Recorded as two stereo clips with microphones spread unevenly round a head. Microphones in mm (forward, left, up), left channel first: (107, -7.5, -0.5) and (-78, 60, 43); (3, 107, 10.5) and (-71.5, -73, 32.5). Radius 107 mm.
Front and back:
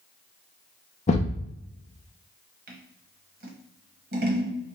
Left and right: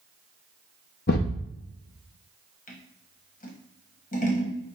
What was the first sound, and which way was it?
A thud, 40° left.